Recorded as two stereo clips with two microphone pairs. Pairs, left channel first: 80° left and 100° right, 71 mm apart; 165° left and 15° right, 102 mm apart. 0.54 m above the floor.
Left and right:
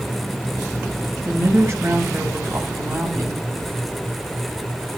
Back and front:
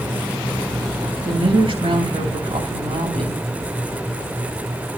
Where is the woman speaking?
45° right, 5 m.